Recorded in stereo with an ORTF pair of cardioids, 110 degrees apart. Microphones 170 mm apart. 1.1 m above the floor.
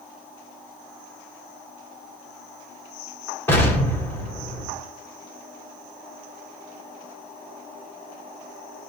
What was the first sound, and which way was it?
An explosion, 15° left.